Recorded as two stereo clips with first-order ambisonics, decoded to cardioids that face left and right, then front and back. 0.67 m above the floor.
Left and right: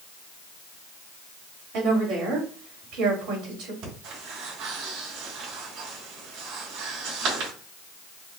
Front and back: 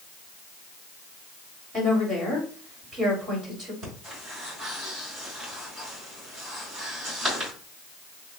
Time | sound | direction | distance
1.7 | a woman speaking | 115° right | 3 m
3.8 | breathing | 115° right | 3 m